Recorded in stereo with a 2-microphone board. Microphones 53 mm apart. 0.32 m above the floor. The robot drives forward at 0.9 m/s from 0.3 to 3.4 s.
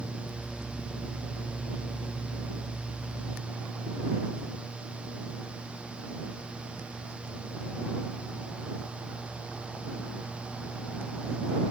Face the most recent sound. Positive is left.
No sound to turn to.